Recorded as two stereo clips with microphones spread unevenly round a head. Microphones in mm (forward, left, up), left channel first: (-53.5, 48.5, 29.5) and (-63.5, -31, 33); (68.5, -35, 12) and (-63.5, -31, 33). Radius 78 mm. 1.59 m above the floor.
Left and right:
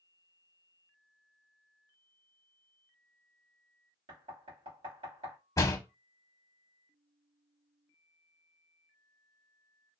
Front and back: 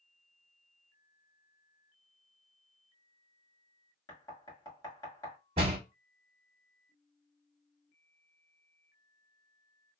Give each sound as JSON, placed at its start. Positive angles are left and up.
{"t": 4.1, "sound": "knocking", "azimuth_deg": -70, "distance_m": 2.0}
{"t": 5.6, "sound": "a door slam", "azimuth_deg": 130, "distance_m": 0.8}